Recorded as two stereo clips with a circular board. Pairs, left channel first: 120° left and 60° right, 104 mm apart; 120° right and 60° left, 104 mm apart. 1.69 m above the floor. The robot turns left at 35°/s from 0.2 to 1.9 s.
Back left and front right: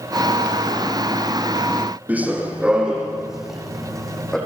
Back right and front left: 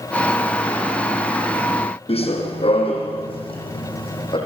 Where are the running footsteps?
135° right, 4.5 m; by 4.4 s 155° right, 5.5 m.